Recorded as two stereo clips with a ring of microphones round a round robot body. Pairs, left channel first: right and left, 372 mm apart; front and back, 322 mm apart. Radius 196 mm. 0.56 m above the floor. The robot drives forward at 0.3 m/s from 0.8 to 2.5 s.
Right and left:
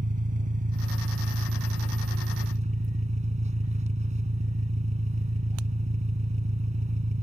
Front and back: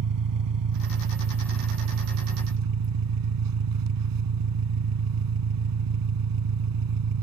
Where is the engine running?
160° left; by 7.2 s 165° left.